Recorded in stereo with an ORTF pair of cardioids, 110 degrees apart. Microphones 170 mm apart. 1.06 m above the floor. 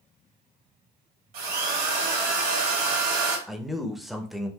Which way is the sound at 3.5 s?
Straight ahead.